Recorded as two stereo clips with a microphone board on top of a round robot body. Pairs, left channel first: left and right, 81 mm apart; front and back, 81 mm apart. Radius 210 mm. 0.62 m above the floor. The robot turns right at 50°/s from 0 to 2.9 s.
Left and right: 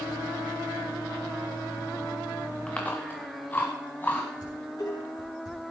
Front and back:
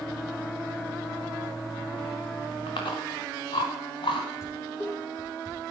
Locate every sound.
2.7 s chewing: 10° left, 0.9 m; by 4.3 s 20° left, 0.9 m
4.4 s dishes clattering: 55° left, 6 m